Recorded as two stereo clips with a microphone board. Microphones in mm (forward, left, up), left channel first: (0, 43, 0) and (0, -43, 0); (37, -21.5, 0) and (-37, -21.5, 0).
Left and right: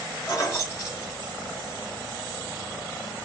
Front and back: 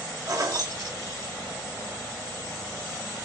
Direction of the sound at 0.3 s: 145° left.